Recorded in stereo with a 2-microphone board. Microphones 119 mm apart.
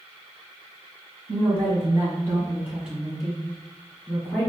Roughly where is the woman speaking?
Right.